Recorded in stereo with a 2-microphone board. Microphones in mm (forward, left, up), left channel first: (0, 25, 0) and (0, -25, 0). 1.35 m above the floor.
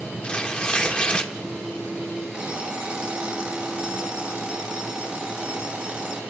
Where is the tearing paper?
20° left (ahead or behind), 2.5 m.